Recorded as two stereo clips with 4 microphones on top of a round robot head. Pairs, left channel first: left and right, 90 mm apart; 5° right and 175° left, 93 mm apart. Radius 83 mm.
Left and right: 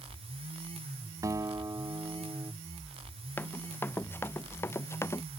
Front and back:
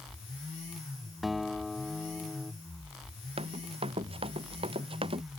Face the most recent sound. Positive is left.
turn(degrees=150)